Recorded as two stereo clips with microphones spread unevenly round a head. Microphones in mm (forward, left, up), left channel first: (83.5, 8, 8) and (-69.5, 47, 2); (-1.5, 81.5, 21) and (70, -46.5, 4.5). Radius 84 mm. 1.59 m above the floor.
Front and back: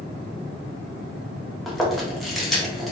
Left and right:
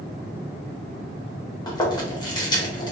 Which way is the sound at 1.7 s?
75° left.